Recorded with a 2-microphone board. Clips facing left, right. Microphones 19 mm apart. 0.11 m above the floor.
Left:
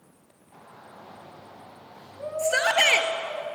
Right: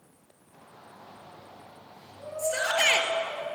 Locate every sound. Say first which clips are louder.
0.5 s a shout: left 3 dB; 45° left (ahead or behind), 8.5 m; by 3.4 s 60° left (ahead or behind), 10.5 m
2.4 s a shout: left 4 dB; 40° left (ahead or behind), 2 m